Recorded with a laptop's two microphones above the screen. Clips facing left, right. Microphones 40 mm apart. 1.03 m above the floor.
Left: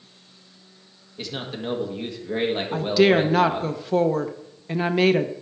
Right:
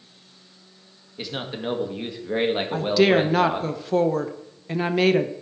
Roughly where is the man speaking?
Centre.